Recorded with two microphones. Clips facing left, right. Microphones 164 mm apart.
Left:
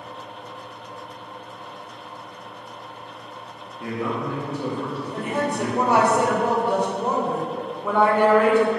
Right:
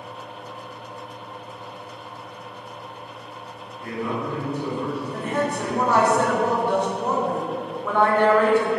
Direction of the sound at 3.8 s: 75° left (ahead or behind).